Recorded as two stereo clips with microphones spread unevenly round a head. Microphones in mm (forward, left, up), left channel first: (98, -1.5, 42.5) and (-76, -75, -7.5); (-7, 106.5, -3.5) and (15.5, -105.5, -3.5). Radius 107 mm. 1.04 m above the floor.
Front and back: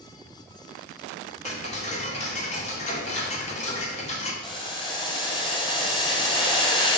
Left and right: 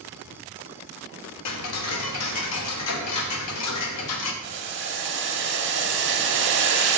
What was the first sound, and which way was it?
Ticking, 80° left.